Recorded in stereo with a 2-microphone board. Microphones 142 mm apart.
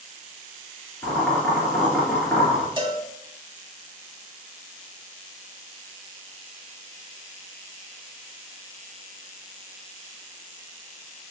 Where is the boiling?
15° left (ahead or behind), 3 m.